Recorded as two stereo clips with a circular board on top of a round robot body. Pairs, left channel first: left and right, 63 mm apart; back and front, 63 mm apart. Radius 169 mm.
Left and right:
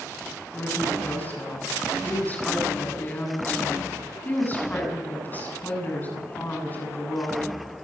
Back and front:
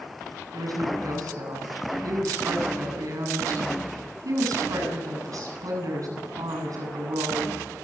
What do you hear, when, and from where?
0.5 s a woman speaking: 25° left, 8 m